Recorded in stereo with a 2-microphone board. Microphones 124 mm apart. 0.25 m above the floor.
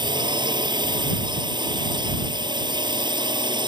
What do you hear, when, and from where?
0.0 s a drone: 40° right (ahead or behind)